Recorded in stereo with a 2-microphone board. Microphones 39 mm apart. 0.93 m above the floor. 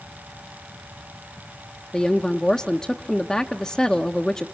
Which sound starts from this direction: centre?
A woman speaking, at 1.9 s.